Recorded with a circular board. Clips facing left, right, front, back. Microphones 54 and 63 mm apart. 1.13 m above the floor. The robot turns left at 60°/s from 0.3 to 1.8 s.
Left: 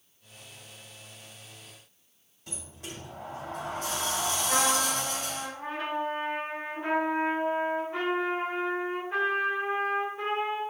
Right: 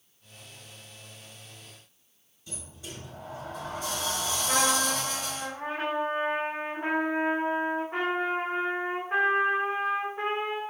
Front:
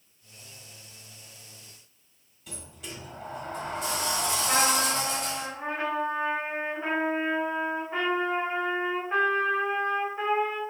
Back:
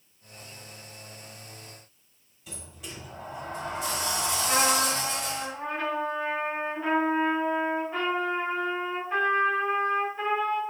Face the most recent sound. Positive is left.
turn(degrees=-70)